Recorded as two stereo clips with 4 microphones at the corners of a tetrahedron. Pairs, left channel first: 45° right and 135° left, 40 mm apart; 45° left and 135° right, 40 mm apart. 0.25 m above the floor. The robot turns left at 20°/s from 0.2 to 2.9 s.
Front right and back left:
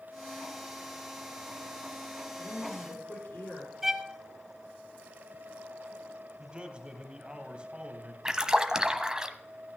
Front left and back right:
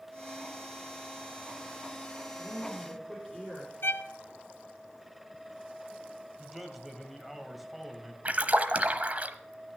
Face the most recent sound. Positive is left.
turn(degrees=-160)